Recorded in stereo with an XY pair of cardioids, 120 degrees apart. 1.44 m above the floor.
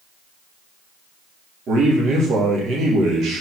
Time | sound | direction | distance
1.7 | a man speaking | 55° right | 2.5 m